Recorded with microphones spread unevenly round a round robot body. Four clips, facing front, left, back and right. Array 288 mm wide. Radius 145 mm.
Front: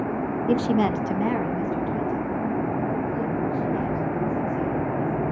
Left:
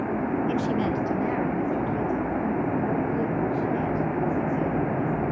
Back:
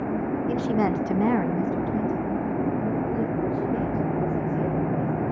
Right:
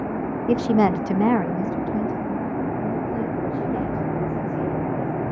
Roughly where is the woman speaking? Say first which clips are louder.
Right 6 dB, front 3 dB; ahead right.